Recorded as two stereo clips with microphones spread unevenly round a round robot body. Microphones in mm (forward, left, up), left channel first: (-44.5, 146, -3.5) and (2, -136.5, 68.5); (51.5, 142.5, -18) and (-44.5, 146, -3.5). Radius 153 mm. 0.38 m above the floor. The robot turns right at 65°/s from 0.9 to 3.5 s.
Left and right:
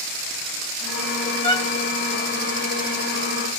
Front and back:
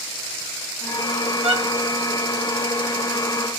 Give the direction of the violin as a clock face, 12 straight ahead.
7 o'clock.